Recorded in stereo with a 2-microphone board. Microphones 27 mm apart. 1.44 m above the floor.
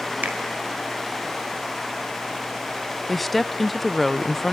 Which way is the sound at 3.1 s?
Centre (ahead or behind).